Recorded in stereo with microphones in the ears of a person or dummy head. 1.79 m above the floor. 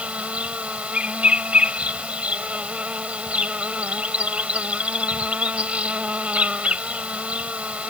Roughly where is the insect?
Centre.